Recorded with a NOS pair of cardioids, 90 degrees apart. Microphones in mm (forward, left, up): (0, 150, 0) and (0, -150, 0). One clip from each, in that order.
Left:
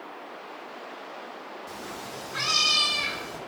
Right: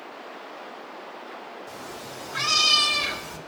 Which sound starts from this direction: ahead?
A cat meowing, at 1.7 s.